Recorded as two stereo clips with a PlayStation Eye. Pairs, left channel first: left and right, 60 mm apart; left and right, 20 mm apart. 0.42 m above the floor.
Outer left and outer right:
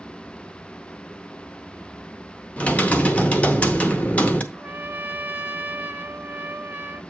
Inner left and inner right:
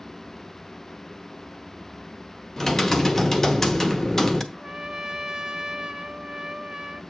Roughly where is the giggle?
No giggle in this recording.